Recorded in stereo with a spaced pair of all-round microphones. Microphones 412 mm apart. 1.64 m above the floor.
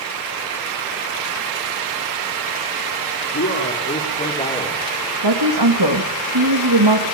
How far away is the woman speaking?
About 2.5 m.